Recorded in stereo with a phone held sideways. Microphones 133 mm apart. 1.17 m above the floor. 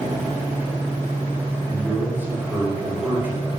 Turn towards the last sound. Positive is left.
turn(degrees=-15)  # may be behind; listen again after turning